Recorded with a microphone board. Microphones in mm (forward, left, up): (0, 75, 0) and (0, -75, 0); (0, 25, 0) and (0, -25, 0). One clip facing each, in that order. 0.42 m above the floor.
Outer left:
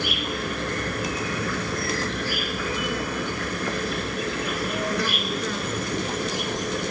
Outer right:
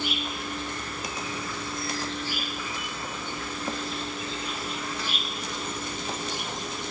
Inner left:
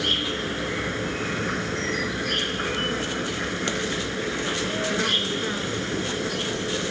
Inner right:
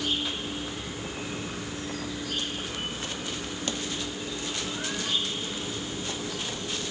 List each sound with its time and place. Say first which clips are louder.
0.0 s an insect: outer left 4 dB, inner left 5 dB; 75° left (ahead or behind), 0.9 m